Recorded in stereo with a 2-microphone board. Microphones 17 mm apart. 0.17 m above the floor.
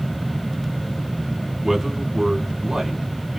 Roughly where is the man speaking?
Right.